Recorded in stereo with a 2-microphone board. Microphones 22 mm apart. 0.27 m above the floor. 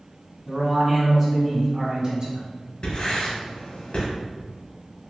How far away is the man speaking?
About 1.9 m.